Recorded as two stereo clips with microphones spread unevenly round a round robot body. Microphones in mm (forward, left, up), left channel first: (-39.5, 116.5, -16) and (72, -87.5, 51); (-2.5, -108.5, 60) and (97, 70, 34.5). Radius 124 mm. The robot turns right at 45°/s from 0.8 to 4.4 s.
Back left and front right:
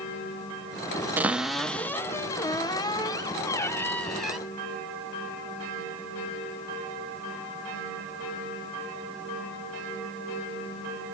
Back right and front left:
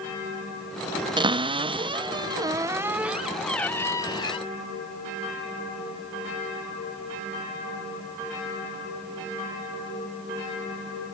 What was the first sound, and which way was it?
A cupboard door, 40° left.